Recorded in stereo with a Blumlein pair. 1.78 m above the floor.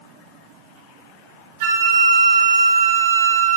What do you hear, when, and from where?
1.6 s a flute: 55° right, 2.5 m